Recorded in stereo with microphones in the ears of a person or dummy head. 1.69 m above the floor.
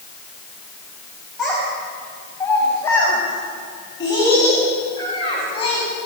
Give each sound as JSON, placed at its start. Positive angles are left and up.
{"t": 1.4, "sound": "a child speaking", "side_deg": 5, "distance_m": 7.5}